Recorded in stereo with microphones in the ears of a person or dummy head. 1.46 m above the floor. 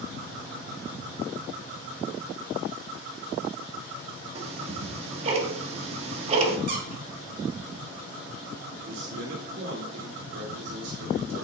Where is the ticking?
40° right (ahead or behind), 2.5 m.